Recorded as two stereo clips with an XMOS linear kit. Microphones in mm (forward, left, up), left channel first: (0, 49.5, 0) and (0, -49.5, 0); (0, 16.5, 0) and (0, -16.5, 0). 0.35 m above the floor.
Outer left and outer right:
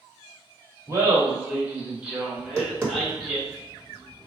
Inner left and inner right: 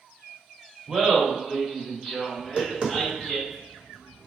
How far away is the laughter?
About 1.2 m.